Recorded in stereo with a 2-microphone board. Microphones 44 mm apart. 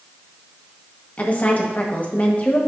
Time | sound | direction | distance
1.2 | a woman speaking | 35° left (ahead or behind) | 1.5 m